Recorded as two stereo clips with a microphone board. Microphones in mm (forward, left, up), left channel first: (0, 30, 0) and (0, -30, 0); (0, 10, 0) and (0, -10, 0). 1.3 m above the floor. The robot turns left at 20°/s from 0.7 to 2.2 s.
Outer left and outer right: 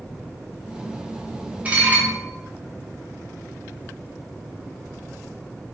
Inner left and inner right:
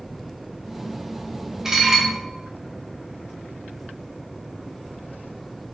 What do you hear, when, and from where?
1.6 s dishes clattering: 25° right (ahead or behind), 1.7 m; by 2.1 s 35° right (ahead or behind), 1.7 m